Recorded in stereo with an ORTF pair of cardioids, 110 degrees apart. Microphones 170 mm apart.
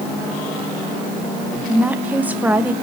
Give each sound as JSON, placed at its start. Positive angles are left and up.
{"t": 1.7, "sound": "a woman speaking", "azimuth_deg": -10, "distance_m": 1.0}